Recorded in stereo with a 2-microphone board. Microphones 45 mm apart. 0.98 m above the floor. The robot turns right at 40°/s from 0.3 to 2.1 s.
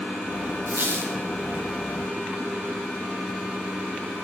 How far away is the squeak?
About 3.5 m.